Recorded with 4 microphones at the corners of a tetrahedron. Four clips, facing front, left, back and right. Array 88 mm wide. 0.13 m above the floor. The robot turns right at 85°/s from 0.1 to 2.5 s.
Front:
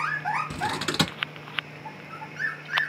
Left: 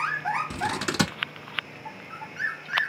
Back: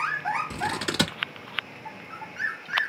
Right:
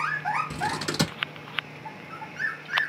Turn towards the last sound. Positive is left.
turn(degrees=-150)